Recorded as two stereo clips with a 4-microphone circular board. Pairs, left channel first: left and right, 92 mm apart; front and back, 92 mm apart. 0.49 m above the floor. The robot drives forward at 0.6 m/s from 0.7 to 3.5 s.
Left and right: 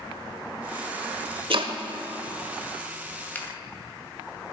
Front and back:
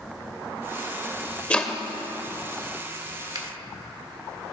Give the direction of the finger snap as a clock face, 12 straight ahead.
7 o'clock.